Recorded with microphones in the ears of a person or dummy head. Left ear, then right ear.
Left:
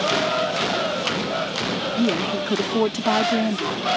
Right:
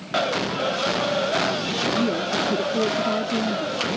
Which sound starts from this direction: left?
A woman speaking, at 2.0 s.